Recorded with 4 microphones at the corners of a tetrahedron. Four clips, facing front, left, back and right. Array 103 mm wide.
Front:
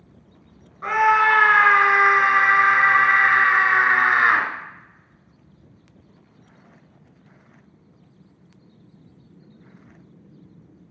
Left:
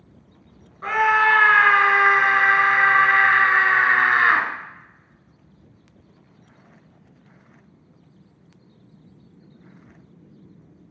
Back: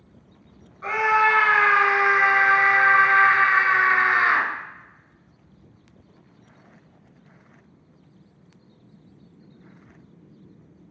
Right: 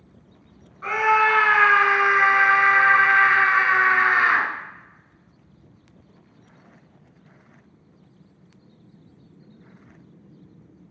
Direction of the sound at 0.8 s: 40° left.